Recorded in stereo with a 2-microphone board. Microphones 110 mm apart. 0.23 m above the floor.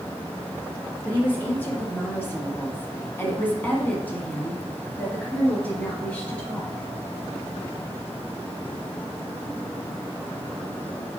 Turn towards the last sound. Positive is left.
turn(degrees=10)  # may be behind; listen again after turning